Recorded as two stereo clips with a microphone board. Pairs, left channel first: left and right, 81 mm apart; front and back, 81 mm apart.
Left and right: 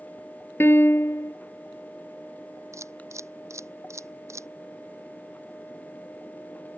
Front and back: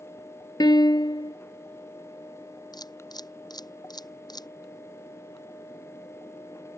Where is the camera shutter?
35° right.